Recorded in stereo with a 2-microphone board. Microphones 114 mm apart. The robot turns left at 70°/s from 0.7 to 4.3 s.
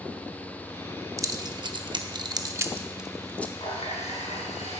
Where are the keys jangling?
25° right (ahead or behind), 0.6 m; by 3.5 s 15° left (ahead or behind), 0.6 m.